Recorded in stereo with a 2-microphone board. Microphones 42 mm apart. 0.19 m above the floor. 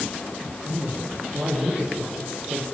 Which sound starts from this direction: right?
A man speaking, at 0.7 s.